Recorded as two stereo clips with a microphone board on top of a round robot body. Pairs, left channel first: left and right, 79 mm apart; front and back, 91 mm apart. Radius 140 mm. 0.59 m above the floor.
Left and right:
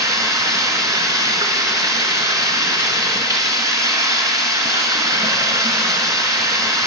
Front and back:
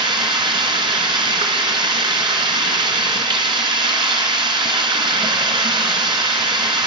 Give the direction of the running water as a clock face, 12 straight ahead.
5 o'clock.